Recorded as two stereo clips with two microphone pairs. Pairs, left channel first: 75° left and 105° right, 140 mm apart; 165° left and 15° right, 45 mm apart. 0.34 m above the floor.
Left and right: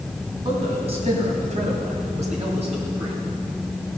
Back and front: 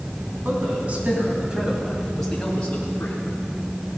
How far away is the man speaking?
About 3.5 m.